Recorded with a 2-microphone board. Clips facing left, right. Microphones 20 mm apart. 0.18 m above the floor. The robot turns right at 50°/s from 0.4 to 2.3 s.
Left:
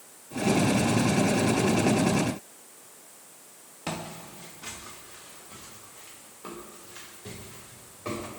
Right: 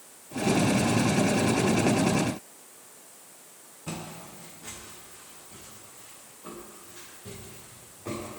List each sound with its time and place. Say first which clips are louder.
3.9 s footsteps: left 3 dB; 75° left (ahead or behind), 2.5 m; by 8.3 s 60° left (ahead or behind), 5 m